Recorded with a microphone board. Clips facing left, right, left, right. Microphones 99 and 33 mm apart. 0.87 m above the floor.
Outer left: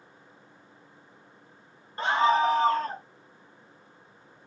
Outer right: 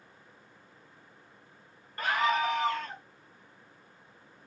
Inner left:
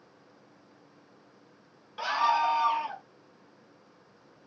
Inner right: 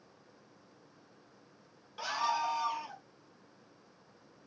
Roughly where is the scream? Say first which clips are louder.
Outer left 5 dB, inner left 7 dB; left.